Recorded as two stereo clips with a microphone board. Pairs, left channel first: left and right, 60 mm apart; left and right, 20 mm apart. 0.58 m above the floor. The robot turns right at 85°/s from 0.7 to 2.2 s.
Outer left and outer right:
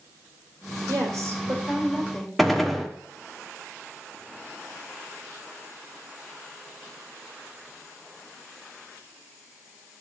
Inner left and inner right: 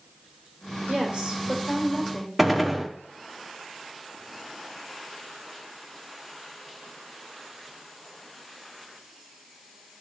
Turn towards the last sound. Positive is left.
turn(degrees=0)  # may be behind; listen again after turning